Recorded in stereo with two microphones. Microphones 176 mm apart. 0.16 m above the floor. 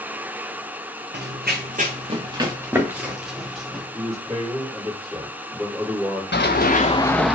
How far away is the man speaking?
About 3 m.